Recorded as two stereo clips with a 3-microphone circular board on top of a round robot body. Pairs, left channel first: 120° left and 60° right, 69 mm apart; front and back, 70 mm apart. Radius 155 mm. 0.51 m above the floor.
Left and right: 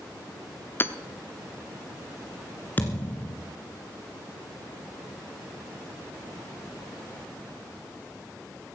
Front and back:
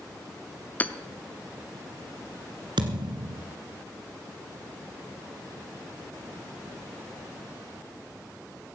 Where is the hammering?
65° left, 0.9 m.